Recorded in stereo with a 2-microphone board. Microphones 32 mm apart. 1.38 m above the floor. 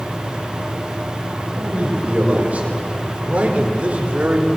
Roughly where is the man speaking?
Right.